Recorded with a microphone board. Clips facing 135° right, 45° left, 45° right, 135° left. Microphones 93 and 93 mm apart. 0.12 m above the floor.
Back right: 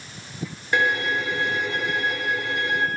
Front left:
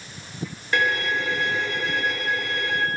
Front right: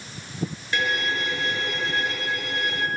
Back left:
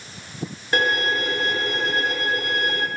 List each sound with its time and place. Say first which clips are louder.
0.7 s a violin: back right 1 dB, back left 5 dB; 160° left, 0.7 m